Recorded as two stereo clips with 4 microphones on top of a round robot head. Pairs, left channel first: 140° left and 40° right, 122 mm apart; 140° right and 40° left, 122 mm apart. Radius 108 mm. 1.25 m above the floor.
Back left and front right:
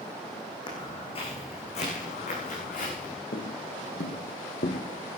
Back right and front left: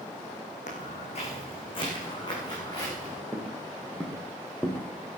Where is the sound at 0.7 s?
165° right, 4 m; by 3.2 s 155° left, 6 m.